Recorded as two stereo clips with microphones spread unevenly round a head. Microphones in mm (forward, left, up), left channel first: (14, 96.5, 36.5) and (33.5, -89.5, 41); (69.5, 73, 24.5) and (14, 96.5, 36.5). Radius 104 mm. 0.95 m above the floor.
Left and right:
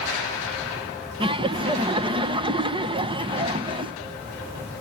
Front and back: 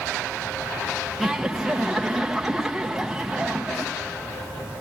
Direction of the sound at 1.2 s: 100° right.